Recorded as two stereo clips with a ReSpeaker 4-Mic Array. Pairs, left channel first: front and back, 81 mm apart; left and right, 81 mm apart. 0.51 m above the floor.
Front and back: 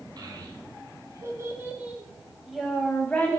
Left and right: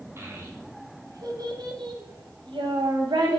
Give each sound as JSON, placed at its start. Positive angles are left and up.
{"t": 0.2, "sound": "a child speaking", "azimuth_deg": -145, "distance_m": 2.5}